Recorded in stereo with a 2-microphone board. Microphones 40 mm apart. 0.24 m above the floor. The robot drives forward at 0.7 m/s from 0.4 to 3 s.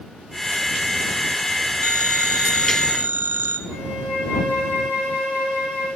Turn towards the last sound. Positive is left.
turn(degrees=-10)  # may be behind; listen again after turning